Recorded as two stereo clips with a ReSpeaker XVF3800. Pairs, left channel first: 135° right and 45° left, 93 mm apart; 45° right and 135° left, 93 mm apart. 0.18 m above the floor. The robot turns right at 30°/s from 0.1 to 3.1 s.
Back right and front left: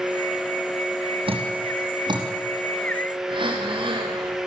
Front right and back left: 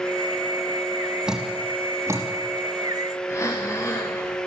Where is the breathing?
15° left, 6.5 m.